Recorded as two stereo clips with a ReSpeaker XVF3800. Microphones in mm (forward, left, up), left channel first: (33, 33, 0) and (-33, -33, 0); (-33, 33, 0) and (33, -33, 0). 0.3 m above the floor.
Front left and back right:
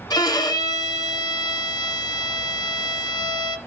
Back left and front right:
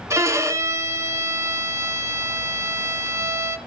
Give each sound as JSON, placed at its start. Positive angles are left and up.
{"t": 0.1, "sound": "a violin", "azimuth_deg": 10, "distance_m": 1.2}